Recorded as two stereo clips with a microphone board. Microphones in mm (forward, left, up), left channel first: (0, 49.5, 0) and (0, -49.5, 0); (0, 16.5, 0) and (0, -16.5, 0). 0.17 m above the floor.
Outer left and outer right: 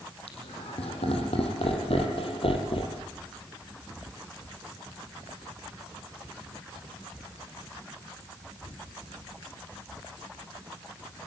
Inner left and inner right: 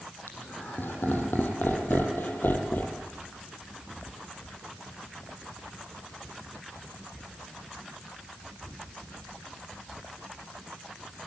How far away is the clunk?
I don't hear a clunk.